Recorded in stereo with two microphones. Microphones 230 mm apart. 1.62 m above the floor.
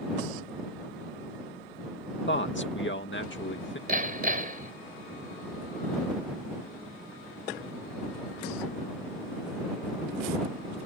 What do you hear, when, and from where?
2.3 s a man speaking: 55° left (ahead or behind)
3.9 s hammering: 40° right (ahead or behind)